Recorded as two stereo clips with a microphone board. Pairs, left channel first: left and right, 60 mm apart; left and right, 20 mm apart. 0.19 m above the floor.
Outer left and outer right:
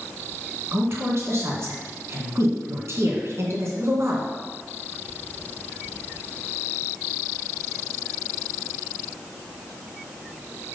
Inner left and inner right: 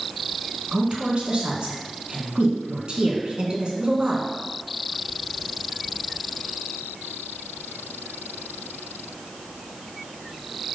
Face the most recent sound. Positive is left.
turn(degrees=-50)  # may be behind; listen again after turning